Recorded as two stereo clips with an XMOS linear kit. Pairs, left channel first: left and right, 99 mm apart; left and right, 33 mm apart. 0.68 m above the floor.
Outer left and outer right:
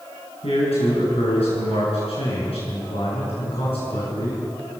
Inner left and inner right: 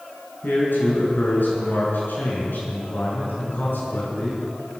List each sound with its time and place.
0.4 s a man speaking: 85° left, 9 m; by 4.4 s 70° left (ahead or behind), 8 m